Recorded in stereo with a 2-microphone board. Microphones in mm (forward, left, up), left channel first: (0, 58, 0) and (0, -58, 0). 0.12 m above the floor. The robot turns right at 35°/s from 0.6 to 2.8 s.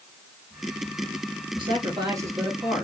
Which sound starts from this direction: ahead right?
A man speaking, at 1.6 s.